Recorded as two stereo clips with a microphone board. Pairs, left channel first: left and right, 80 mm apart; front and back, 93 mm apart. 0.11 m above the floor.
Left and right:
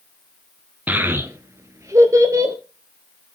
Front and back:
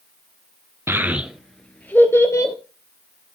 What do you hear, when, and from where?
0.9 s a child speaking: 145° right, 0.9 m; by 2.5 s 50° right, 1.4 m